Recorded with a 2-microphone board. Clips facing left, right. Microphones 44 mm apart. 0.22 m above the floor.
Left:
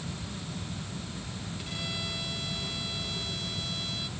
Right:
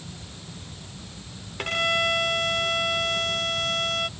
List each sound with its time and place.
1.6 s a violin: 60° right (ahead or behind)